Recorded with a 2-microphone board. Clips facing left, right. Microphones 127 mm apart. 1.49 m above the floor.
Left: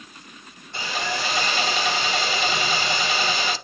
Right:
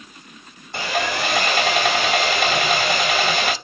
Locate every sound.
0.7 s sawing: 70° right (ahead or behind), 0.6 m